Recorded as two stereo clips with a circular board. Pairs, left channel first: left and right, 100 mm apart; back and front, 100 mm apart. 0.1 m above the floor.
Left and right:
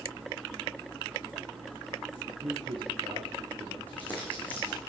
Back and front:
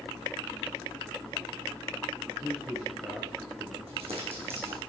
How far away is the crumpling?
About 4.5 m.